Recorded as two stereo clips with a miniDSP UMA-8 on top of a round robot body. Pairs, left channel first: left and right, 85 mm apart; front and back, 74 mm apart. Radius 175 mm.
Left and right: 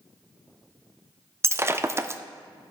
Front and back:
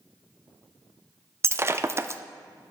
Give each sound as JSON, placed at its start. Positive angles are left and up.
{"t": 1.4, "sound": "breaking glass", "azimuth_deg": -140, "distance_m": 0.6}